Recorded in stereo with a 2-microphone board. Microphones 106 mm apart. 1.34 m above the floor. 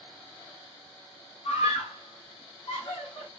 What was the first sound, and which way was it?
A scream, 70° left (ahead or behind).